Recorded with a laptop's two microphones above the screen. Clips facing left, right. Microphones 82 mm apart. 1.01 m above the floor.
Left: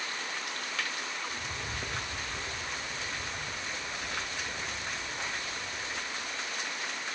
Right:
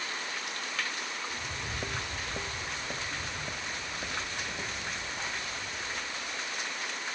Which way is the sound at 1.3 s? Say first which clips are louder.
Even; 5° right (ahead or behind).